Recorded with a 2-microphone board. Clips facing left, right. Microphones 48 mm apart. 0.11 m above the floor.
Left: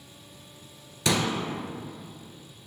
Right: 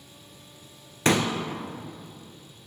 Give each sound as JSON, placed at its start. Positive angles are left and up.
{"t": 1.1, "sound": "a pop", "side_deg": -40, "distance_m": 0.6}